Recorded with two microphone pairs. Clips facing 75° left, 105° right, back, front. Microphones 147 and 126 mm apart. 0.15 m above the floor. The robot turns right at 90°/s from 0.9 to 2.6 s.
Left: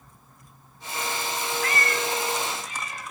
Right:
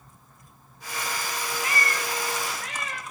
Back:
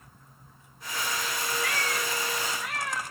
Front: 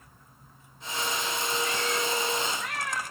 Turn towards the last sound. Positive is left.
turn(degrees=-90)